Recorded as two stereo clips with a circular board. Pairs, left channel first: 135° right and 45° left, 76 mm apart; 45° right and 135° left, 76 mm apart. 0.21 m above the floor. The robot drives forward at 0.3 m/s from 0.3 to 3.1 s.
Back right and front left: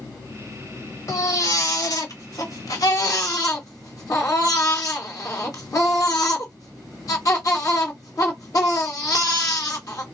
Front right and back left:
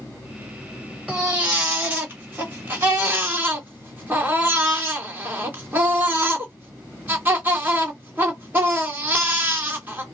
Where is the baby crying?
155° right, 1.5 m; by 10.0 s 165° right, 1.9 m.